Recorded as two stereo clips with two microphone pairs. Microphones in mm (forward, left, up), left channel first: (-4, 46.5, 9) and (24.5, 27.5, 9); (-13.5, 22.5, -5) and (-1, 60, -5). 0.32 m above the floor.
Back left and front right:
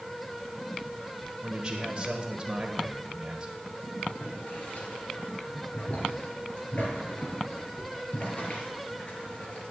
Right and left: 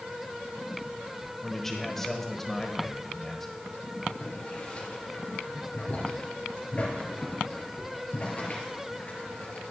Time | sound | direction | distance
1.4 | a man speaking | 35° right | 1.2 m
4.1 | boiling | 165° right | 3 m